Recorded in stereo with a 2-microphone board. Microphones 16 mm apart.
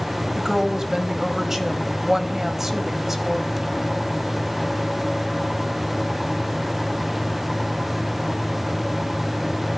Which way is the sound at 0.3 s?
25° right (ahead or behind).